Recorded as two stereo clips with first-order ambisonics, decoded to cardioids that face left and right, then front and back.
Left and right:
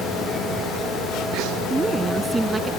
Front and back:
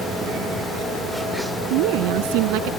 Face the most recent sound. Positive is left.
turn(degrees=-170)